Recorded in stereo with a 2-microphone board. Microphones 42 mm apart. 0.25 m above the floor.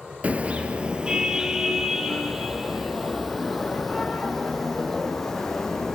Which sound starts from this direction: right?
A car horn, at 0.2 s.